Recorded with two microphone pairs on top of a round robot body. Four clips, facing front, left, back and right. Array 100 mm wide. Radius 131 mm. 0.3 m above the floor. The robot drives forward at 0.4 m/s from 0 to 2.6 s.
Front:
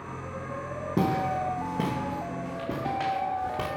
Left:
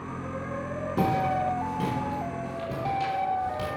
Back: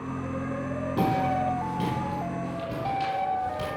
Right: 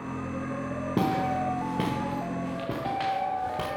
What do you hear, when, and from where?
1.0 s footsteps: 70° right, 3.5 m; by 3.7 s 45° right, 2.5 m